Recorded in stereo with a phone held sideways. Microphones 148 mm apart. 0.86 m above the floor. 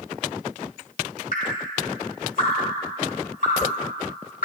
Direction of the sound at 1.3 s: 65° left (ahead or behind).